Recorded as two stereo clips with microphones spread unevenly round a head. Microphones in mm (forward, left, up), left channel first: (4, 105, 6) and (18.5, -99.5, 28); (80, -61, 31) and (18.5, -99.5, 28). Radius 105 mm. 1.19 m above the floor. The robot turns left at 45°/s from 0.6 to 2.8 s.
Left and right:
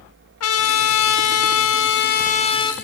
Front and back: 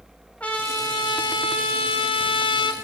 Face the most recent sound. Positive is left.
turn(degrees=15)